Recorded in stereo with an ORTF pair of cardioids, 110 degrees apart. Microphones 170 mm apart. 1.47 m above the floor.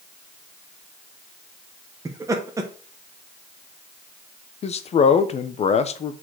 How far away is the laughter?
About 1.3 m.